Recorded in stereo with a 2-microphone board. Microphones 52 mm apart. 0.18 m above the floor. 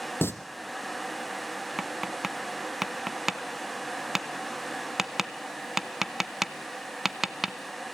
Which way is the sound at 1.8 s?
5° right (ahead or behind).